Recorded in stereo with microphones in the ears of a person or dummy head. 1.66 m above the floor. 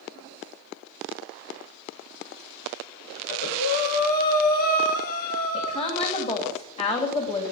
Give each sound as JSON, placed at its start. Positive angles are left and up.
{"t": 3.2, "sound": "breathing", "side_deg": 50, "distance_m": 2.5}
{"t": 5.5, "sound": "a woman speaking", "side_deg": 30, "distance_m": 3.0}